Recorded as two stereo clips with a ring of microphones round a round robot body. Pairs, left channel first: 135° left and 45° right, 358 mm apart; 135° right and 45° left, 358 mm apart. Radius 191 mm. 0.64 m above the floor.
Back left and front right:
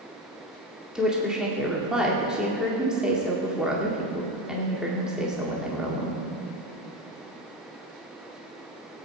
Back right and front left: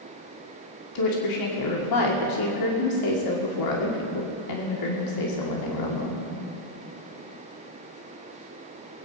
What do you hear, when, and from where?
0.9 s a woman speaking: 135° right, 2 m